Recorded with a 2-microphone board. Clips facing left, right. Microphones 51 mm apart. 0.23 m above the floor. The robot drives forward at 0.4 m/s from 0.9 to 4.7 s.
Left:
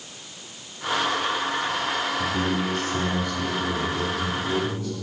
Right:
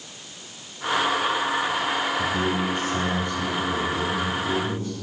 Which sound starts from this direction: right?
A man speaking, at 2.2 s.